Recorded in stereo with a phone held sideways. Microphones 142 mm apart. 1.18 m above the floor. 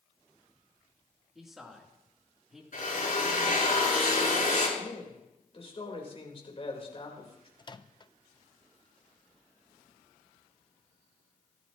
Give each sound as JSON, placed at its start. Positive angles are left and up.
{"t": 1.4, "sound": "a man speaking", "side_deg": -5, "distance_m": 3.0}
{"t": 2.7, "sound": "a drill", "side_deg": 65, "distance_m": 7.0}
{"t": 4.8, "sound": "a man speaking", "side_deg": 40, "distance_m": 4.0}
{"t": 7.6, "sound": "a microwave", "side_deg": 30, "distance_m": 0.5}